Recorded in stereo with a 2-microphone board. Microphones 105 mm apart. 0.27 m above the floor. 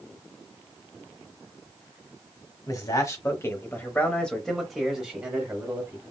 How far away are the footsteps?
No footsteps in this recording.